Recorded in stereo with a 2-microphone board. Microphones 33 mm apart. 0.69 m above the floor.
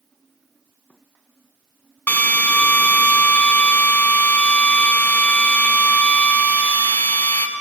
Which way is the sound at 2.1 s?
65° left (ahead or behind).